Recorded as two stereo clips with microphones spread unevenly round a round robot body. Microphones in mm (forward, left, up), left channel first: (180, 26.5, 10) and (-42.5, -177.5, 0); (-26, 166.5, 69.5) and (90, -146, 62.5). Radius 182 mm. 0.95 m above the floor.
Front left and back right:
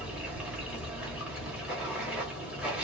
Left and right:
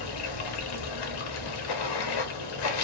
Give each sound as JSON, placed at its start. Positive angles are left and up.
{"t": 0.0, "sound": "running water", "azimuth_deg": 135, "distance_m": 0.9}